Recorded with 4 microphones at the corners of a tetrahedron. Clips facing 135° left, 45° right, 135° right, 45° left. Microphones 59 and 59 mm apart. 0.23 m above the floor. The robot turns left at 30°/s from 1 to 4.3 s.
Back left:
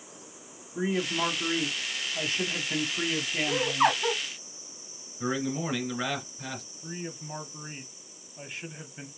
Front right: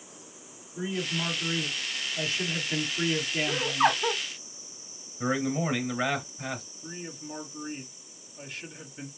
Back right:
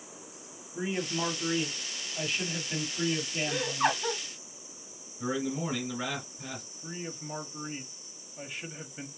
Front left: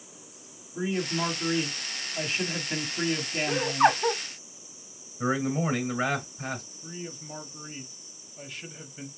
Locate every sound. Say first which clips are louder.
0.8 s a man speaking: back left 3 dB, front left 3 dB; 145° left, 1.3 m; by 4.0 s 55° left, 1.3 m
3.5 s laughter: back left 1 dB, front left 7 dB; 65° left, 1.7 m; by 4.2 s 45° left, 1.7 m
5.2 s a man speaking: front right 2 dB, front left 5 dB; 30° left, 3 m
6.8 s a man speaking: back left 1 dB, even; 170° left, 1.0 m